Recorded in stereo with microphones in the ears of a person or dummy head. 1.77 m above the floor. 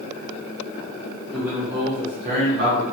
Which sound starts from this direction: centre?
A man speaking, at 1.3 s.